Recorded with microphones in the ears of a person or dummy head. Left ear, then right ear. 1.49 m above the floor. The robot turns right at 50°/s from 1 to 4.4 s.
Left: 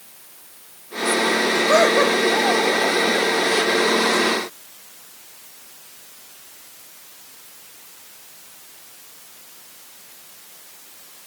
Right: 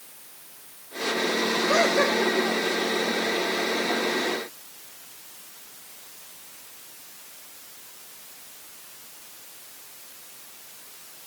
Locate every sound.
1.5 s laughter: 100° left, 7.5 m; by 2.5 s 150° left, 7.5 m